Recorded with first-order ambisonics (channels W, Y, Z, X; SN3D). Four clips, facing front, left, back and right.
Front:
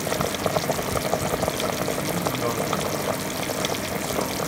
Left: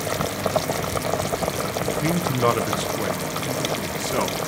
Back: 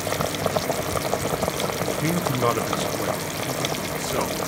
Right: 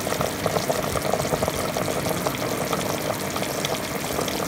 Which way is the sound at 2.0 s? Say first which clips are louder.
Left 4 dB, back 3 dB; 130° left.